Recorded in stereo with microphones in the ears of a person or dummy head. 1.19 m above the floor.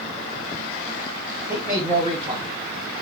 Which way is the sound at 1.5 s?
10° right (ahead or behind).